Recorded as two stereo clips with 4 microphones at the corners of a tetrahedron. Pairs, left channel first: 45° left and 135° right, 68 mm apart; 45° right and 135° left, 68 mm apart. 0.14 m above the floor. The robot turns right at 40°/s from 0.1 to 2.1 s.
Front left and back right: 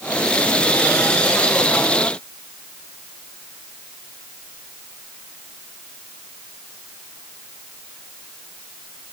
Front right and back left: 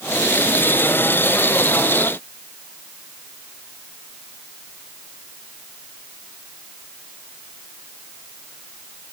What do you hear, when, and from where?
Only background noise.